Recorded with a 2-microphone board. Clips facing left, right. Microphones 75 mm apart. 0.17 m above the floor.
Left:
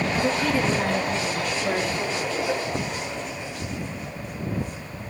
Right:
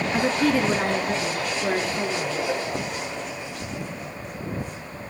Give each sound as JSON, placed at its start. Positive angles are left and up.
{"t": 0.1, "sound": "a woman speaking", "side_deg": -55, "distance_m": 2.0}